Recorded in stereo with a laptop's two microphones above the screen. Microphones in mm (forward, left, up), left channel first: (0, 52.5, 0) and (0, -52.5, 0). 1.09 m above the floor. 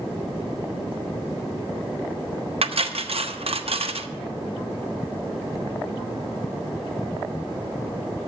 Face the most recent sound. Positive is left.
turn(degrees=-70)  # may be behind; listen again after turning